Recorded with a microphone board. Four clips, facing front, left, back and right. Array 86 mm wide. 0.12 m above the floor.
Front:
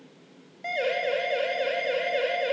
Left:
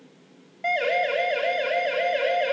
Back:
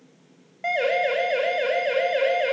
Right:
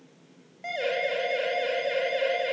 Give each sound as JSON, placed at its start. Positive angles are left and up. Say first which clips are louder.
{"t": 0.6, "sound": "a siren", "louder": "left 5 dB, back 5 dB", "azimuth_deg": 165, "distance_m": 6.5}